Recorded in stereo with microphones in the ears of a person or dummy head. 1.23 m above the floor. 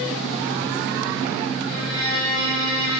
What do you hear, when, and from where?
1.7 s a violin: 30° left (ahead or behind), 1.4 m